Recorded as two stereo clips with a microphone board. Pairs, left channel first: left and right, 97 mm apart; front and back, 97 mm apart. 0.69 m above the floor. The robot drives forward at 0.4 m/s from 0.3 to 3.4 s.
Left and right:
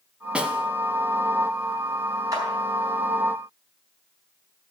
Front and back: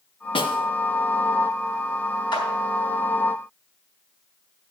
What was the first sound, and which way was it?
A snare drum, 10° right.